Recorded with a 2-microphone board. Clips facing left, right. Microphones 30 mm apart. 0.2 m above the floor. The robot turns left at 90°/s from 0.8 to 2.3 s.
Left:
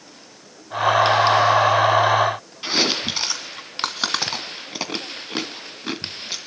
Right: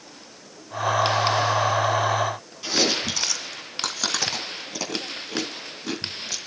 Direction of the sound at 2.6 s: 40° left (ahead or behind).